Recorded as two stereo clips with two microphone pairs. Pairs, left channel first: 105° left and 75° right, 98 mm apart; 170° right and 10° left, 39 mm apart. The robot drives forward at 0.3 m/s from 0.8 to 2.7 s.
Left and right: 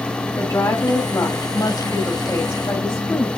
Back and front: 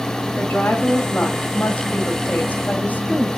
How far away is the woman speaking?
About 3 m.